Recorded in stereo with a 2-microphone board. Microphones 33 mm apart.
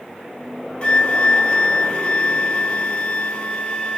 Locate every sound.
0.8 s a flute: 35° left (ahead or behind), 0.9 m